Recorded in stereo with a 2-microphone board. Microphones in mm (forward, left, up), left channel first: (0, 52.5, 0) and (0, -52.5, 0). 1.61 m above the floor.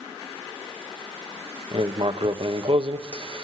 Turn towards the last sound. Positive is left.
turn(degrees=-55)  # may be behind; listen again after turning